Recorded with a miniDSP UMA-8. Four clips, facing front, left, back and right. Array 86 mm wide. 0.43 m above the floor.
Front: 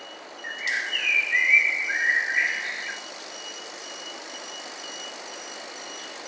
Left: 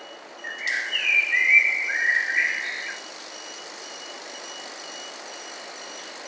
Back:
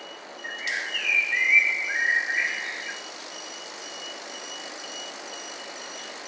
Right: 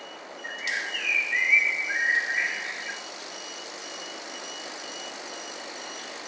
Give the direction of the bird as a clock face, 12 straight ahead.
10 o'clock.